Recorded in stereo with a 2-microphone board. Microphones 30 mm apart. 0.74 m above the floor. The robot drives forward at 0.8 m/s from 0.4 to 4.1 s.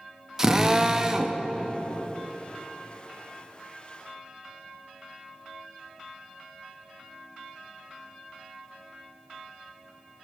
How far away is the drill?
About 0.8 m.